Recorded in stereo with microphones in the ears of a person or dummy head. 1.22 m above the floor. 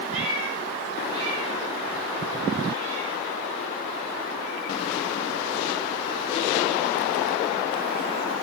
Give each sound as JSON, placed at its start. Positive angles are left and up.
{"t": 0.1, "sound": "a cat meowing", "side_deg": -40, "distance_m": 3.0}